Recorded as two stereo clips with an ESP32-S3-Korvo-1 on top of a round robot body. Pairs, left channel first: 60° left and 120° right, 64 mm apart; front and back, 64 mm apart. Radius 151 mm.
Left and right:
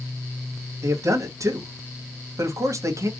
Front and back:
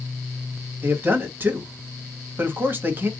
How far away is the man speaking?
About 1.5 m.